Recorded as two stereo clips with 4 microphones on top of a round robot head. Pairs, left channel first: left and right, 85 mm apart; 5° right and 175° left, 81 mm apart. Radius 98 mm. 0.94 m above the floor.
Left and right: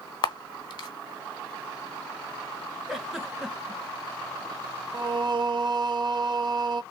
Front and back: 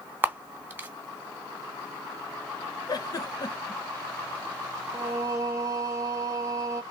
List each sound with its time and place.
0.2 s a camera shutter: 115° left, 0.8 m
2.9 s a giggle: 5° right, 1.1 m
4.9 s singing: 125° right, 0.7 m